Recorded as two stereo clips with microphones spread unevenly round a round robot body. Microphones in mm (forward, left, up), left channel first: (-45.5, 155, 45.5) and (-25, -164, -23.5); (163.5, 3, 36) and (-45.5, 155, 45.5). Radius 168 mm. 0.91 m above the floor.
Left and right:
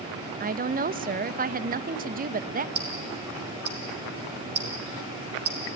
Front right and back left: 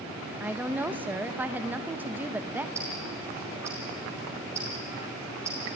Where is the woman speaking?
130° right, 0.8 m.